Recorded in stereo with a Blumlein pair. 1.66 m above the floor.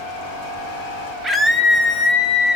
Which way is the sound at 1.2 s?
Straight ahead.